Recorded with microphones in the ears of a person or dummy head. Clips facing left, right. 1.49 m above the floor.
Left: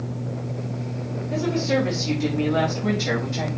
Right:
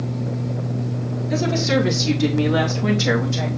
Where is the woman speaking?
75° right (ahead or behind), 2.5 m; by 3.5 s 65° right (ahead or behind), 3.5 m.